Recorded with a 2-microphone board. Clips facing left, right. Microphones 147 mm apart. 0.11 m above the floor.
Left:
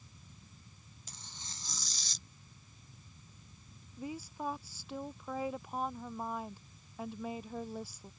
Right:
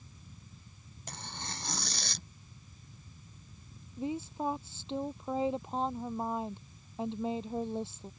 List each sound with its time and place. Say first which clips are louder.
1.1 s tearing paper: right 12 dB; 70° right (ahead or behind)
4.0 s a woman speaking: right 6 dB; 25° right (ahead or behind)